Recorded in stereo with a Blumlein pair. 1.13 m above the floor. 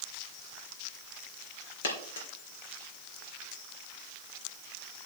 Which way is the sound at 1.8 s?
60° left.